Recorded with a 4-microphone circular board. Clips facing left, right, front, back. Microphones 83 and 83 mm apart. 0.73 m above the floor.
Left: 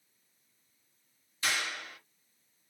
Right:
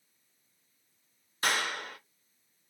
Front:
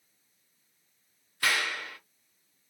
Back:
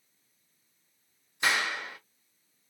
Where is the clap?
115° right, 0.6 m.